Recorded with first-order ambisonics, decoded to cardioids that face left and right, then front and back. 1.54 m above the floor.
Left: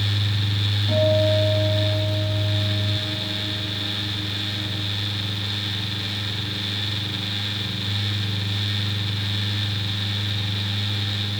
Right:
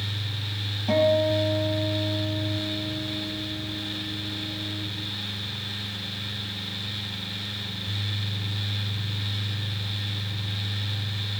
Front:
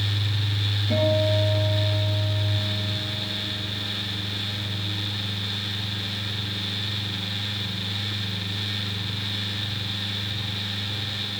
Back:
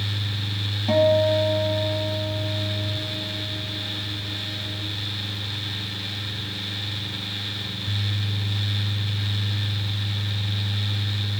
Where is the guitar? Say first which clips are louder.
Left 1 dB, back 5 dB; 155° right, 3.5 m.